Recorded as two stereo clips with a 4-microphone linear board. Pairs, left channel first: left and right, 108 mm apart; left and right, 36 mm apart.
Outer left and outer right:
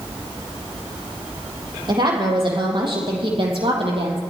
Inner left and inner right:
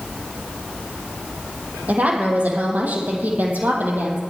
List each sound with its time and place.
1.9 s a woman speaking: 45° right (ahead or behind), 5.5 m; by 4.2 s 60° right (ahead or behind), 4.5 m